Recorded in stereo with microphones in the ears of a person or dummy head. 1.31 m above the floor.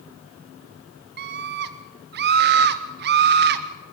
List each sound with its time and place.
1.2 s a scream: 45° right (ahead or behind), 0.7 m